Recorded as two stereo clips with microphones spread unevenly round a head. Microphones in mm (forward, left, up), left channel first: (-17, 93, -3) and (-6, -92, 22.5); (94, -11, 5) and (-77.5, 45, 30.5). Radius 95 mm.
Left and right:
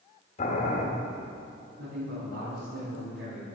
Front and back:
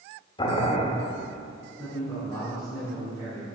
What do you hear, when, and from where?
0.4 s boiling: 40° left, 1.4 m
1.8 s a man speaking: 90° right, 3.5 m